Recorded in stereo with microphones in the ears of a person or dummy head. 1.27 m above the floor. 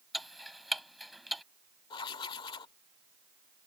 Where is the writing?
30° left (ahead or behind).